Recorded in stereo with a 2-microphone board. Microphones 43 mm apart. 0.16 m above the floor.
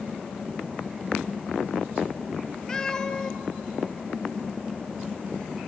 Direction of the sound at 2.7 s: 15° left (ahead or behind).